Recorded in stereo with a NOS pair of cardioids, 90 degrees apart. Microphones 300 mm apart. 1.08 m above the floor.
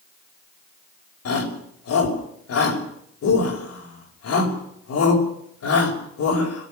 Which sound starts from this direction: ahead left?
A shout, at 1.2 s.